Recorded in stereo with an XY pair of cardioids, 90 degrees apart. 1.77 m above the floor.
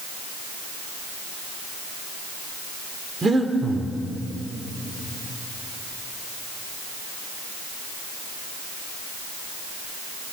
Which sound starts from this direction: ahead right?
Breathing, at 3.2 s.